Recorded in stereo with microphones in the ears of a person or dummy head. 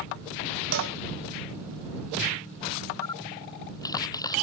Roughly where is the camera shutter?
Left.